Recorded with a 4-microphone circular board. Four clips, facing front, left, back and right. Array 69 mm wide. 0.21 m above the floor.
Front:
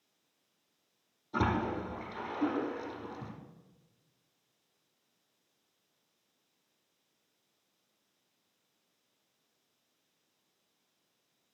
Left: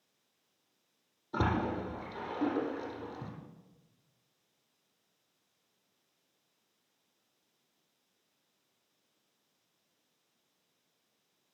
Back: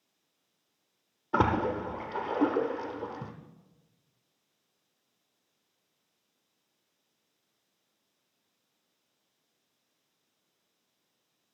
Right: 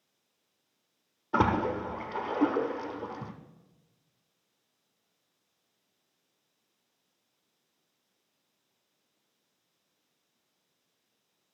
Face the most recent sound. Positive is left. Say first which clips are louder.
# right 6 dB, back 5 dB
turn(degrees=-140)